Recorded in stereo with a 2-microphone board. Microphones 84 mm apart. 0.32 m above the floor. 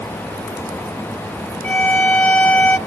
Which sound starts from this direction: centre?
A violin, at 1.6 s.